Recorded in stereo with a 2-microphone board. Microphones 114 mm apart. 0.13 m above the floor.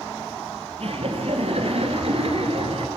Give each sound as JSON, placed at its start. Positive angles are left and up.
{"t": 0.8, "sound": "laughter", "side_deg": -55, "distance_m": 3.5}